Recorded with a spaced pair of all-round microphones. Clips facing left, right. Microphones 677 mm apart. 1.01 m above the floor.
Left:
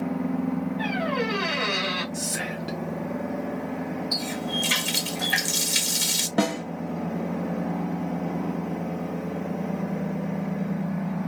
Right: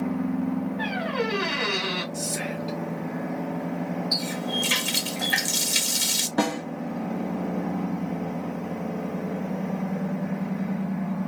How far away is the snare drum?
About 1.5 m.